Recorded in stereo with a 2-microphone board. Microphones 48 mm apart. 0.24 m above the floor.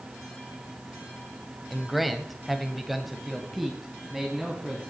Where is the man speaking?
Centre (ahead or behind), 1.0 m.